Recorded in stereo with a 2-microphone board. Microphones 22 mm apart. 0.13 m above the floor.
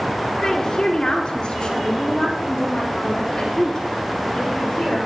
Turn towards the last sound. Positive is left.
turn(degrees=35)  # may be behind; listen again after turning